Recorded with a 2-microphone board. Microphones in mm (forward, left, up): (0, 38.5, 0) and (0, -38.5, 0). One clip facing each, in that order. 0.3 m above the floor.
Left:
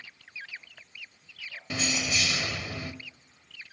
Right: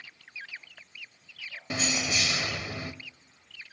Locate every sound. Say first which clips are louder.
1.7 s keys jangling: even; 20° right (ahead or behind), 0.7 m